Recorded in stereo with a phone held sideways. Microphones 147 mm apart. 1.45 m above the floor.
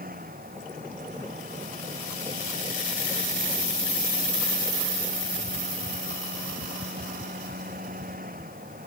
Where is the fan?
80° right.